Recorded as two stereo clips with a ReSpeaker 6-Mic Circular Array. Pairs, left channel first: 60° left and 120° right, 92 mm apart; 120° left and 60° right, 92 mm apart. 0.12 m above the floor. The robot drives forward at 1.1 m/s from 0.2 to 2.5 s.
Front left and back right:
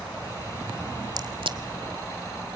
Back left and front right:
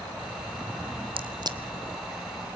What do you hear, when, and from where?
1.2 s a crack: 75° right, 0.9 m; by 1.6 s 105° right, 0.9 m